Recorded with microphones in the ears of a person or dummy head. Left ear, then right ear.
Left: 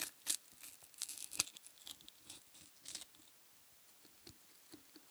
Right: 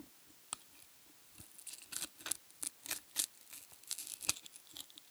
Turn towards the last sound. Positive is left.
No sound to turn to.